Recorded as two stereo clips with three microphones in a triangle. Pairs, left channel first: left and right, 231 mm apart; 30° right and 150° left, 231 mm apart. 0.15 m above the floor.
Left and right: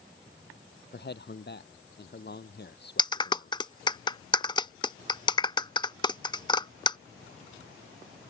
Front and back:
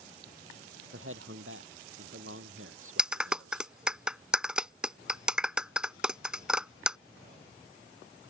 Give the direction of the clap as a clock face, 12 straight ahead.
10 o'clock.